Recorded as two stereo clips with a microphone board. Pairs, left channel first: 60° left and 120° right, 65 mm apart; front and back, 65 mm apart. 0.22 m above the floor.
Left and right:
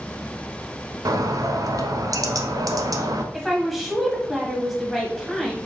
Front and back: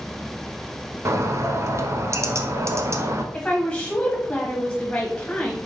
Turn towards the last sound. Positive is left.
turn(degrees=-30)